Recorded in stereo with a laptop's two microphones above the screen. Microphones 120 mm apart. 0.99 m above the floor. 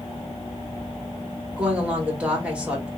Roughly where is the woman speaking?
Centre.